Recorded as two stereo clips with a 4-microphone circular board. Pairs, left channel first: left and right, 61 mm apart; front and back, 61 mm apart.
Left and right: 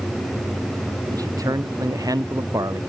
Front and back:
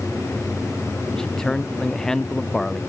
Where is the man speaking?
80° right.